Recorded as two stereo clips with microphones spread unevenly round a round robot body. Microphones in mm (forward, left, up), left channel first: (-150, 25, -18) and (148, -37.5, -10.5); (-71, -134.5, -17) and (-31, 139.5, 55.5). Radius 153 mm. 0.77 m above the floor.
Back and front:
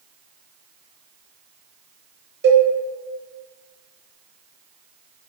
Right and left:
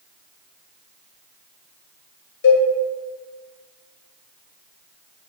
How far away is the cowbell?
About 0.6 m.